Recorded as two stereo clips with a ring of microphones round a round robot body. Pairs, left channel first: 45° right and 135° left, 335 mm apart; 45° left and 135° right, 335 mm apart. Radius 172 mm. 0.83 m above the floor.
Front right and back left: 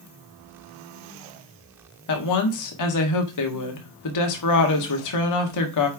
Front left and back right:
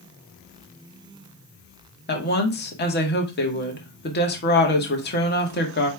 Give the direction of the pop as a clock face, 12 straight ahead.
No pop in this recording.